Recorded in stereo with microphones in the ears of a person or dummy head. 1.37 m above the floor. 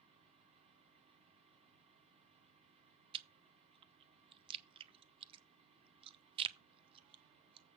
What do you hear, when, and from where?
0.0 s a fan: 35° right (ahead or behind), 3.5 m
3.1 s chewing: 30° right (ahead or behind), 0.7 m